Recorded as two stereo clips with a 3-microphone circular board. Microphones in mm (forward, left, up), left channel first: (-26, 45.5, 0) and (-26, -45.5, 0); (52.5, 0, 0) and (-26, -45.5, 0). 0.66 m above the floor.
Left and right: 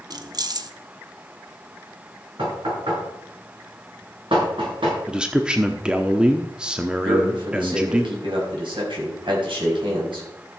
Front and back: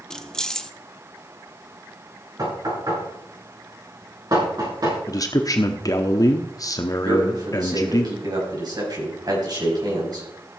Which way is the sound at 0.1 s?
55° right.